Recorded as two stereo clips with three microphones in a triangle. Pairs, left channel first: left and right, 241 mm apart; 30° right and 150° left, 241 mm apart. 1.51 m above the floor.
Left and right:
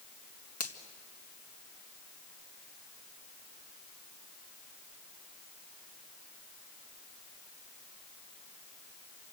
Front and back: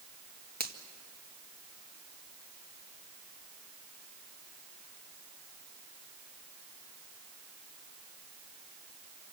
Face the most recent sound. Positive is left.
turn(degrees=100)